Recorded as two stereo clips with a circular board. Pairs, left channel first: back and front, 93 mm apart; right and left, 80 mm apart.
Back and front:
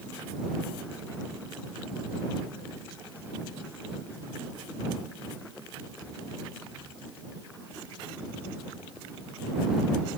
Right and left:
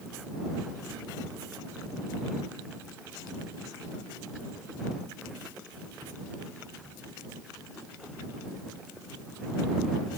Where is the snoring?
I don't hear snoring.